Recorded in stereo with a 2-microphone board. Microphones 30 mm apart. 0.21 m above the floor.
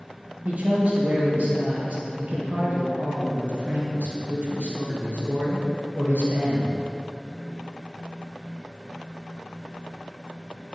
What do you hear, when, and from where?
0.5 s a man speaking: 65° right (ahead or behind), 3.5 m